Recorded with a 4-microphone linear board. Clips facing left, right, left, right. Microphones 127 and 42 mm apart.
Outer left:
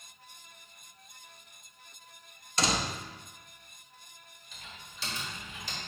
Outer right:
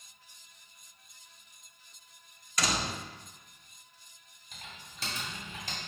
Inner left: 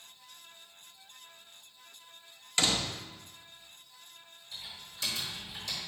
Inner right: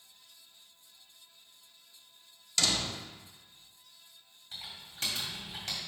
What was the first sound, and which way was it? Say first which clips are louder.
A door slam: outer left 2 dB, inner left 1 dB; 25° left (ahead or behind).